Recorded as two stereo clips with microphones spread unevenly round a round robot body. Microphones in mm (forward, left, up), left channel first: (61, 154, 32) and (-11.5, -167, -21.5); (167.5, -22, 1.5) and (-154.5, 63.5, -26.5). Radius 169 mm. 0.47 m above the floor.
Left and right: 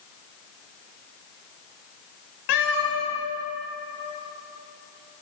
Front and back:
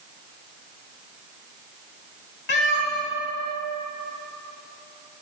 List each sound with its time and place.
2.5 s a cat meowing: 45° left, 1.4 m